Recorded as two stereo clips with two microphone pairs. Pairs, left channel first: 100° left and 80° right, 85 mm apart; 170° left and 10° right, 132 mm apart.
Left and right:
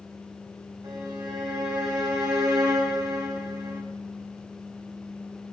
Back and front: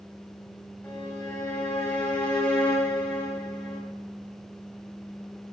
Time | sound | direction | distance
0.8 | a violin | 120° right | 5 m